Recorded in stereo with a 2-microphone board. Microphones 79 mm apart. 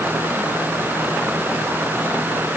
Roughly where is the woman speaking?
No woman speaking in this recording.